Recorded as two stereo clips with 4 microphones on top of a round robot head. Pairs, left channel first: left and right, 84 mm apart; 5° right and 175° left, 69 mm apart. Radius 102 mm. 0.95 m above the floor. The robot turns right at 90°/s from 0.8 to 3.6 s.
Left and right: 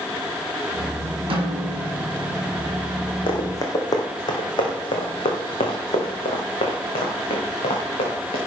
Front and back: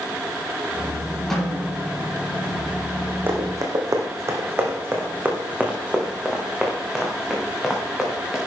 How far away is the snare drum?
About 4 m.